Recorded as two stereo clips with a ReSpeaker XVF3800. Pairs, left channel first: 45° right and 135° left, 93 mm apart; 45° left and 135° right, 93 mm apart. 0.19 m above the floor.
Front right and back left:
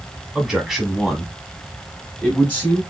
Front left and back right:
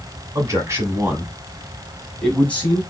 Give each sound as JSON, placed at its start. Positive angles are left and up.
{"t": 0.3, "sound": "a man speaking", "azimuth_deg": -145, "distance_m": 1.4}